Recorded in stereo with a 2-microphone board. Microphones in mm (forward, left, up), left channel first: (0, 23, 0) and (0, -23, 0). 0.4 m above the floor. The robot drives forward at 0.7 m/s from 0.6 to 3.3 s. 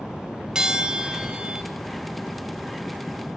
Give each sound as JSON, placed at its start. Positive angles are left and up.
{"t": 0.6, "sound": "a bell", "side_deg": -20, "distance_m": 1.6}